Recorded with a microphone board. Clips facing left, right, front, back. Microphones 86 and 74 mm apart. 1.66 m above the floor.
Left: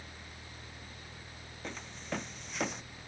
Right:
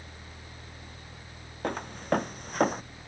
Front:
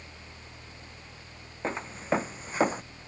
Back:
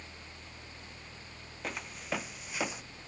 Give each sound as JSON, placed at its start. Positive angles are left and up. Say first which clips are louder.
{"t": 1.6, "sound": "footsteps", "louder": "right 12 dB, front 8 dB", "azimuth_deg": -60}